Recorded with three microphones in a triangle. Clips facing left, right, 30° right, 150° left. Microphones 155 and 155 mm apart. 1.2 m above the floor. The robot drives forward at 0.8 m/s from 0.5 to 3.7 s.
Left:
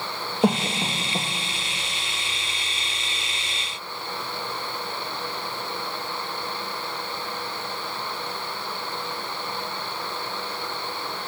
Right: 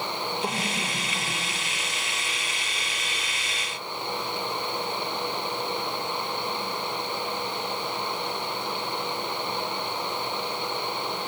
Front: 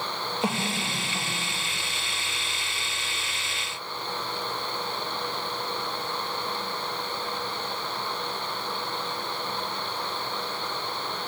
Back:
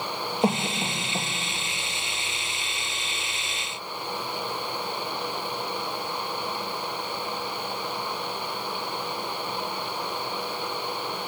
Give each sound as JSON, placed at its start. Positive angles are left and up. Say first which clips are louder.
{"t": 0.4, "sound": "a cough", "louder": "left 8 dB, back 5 dB", "azimuth_deg": 90, "distance_m": 1.4}